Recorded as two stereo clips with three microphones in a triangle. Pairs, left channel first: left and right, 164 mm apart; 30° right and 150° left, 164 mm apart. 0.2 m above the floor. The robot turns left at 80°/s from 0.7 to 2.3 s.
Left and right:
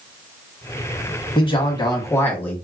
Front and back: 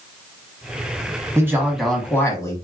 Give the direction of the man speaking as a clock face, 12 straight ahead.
9 o'clock.